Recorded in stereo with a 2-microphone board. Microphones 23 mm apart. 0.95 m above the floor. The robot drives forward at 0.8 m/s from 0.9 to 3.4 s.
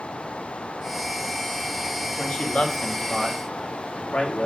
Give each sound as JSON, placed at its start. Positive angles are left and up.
{"t": 2.2, "sound": "a man speaking", "side_deg": 65, "distance_m": 2.0}